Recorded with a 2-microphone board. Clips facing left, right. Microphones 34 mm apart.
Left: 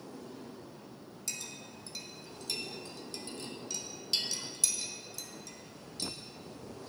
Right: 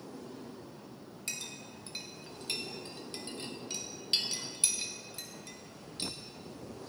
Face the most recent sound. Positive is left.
turn(degrees=-35)  # may be behind; listen again after turning